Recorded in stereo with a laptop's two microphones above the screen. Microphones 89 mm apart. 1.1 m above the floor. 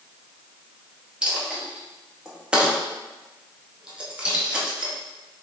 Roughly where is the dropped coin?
Centre.